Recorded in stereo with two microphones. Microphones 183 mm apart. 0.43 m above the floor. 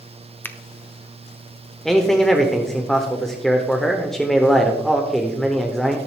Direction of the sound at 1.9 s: Centre (ahead or behind).